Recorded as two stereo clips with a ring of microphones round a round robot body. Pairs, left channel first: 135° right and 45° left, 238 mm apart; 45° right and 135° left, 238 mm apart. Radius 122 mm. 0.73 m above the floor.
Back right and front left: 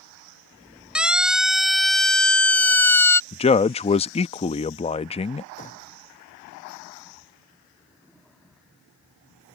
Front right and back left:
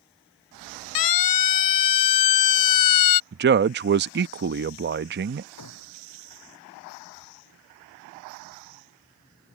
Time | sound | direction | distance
0.9 | a siren | 40° right | ?
3.3 | a man speaking | 165° left | ?
5.6 | a gunshot | 75° right | ?